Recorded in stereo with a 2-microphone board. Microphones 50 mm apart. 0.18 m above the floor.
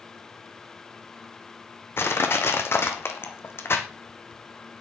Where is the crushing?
55° left (ahead or behind), 1.9 m.